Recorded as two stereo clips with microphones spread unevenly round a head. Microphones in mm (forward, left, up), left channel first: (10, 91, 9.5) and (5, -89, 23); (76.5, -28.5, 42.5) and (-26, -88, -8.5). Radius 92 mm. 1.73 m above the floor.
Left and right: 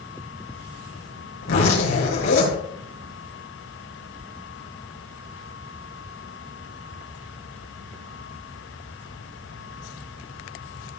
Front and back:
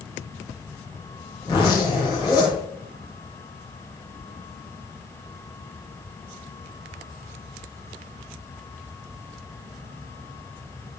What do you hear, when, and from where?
1.4 s a zipper: 105° left, 6 m